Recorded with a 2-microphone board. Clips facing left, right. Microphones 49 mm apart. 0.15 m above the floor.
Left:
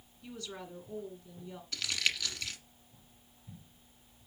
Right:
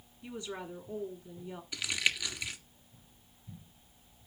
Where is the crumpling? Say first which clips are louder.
Right 2 dB; 15° right (ahead or behind), 1.5 m.